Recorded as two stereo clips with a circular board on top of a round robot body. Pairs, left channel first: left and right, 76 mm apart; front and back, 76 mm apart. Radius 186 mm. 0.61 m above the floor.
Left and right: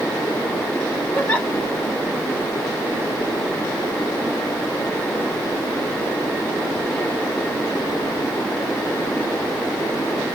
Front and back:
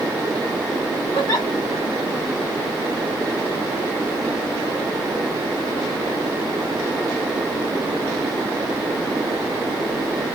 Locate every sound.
1.1 s a giggle: 25° left, 2.5 m